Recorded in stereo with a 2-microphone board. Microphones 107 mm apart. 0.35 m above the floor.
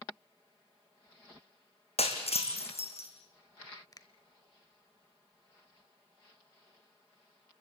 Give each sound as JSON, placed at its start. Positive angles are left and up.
{"t": 2.0, "sound": "breaking glass", "side_deg": 70, "distance_m": 3.0}
{"t": 3.9, "sound": "a finger snap", "side_deg": 35, "distance_m": 1.1}